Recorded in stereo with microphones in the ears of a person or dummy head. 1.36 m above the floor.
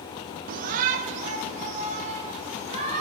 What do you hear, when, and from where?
0.5 s a shout: 50° right (ahead or behind), 0.7 m; by 3.0 s 40° right (ahead or behind), 3.5 m